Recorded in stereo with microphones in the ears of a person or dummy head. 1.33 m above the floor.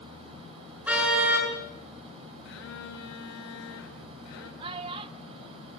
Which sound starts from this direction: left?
A phone buzzing, at 2.5 s.